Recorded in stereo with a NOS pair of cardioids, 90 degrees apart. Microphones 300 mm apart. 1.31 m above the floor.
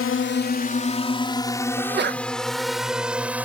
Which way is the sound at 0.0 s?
45° left.